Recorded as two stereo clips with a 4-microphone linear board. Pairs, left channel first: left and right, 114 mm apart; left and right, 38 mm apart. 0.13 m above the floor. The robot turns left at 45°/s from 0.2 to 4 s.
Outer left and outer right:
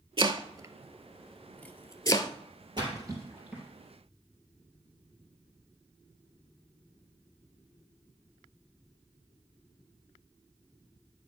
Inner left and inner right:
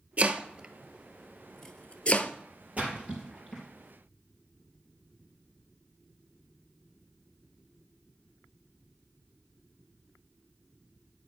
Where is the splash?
40° right (ahead or behind), 3.5 m; by 3.6 s 5° right (ahead or behind), 3.5 m.